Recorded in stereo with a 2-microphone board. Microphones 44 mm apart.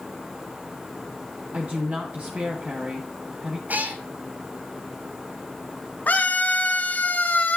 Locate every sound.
1.5 s a woman speaking: 30° right (ahead or behind), 2 m
3.7 s a cat meowing: 45° right (ahead or behind), 1.1 m
6.1 s a scream: 40° left (ahead or behind), 2 m